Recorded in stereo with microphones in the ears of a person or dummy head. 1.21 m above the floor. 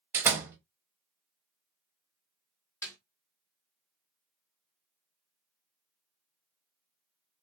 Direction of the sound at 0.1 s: 15° right (ahead or behind).